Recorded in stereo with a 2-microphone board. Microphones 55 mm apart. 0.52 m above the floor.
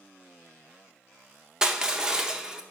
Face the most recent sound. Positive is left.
turn(degrees=-10)  # may be behind; listen again after turning